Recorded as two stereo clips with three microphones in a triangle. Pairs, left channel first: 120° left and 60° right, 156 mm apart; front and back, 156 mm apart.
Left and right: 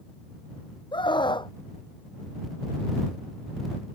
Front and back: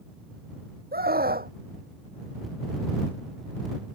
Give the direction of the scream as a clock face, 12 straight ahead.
6 o'clock.